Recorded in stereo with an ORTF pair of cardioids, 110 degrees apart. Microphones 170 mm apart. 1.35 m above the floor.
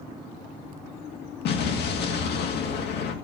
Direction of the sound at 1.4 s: 65° left.